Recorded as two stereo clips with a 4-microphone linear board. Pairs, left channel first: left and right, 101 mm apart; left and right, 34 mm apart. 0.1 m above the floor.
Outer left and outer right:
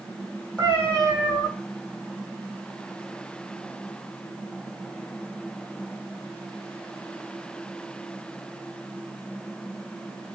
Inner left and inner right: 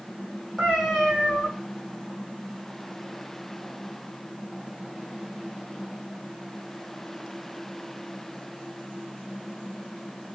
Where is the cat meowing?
10° left (ahead or behind), 2.5 m.